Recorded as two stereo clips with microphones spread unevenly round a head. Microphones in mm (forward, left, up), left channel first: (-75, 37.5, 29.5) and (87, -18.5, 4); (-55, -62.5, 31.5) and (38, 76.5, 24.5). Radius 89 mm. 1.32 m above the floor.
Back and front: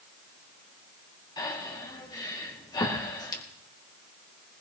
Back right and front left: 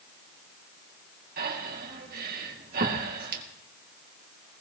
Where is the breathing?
95° left, 2.5 m.